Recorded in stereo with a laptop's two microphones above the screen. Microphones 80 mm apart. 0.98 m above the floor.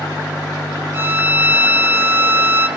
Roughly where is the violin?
Right.